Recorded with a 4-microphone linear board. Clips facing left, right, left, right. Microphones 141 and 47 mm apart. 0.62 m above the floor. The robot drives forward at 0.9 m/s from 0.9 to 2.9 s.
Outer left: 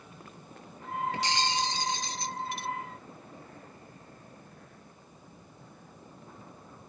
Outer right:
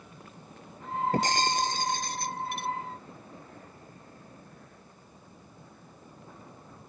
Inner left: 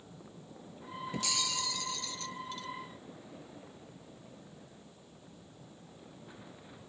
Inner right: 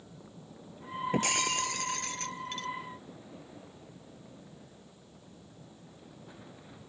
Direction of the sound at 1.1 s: 45° right (ahead or behind).